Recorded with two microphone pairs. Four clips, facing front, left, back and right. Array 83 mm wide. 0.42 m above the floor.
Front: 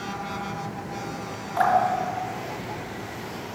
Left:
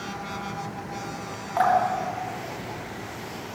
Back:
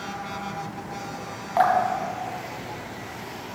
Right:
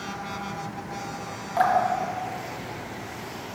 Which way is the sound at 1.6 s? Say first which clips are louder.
Even, even; 155° left.